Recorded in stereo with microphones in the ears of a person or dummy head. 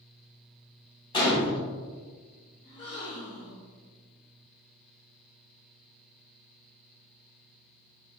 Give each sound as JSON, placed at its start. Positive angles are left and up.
{"t": 1.1, "sound": "a gunshot", "side_deg": 20, "distance_m": 0.8}
{"t": 2.6, "sound": "a gasp", "side_deg": 20, "distance_m": 0.6}